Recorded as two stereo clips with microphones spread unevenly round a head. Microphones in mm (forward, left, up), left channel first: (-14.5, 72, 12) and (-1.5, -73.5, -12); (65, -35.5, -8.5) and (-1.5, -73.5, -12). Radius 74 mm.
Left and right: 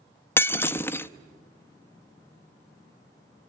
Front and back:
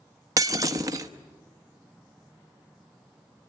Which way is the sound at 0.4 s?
160° left.